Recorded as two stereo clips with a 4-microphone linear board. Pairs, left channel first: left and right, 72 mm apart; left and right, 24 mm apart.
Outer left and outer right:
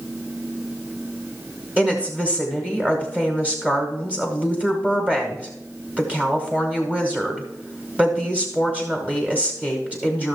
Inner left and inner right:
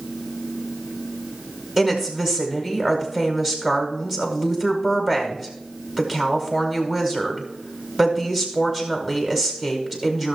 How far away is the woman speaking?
About 1.5 m.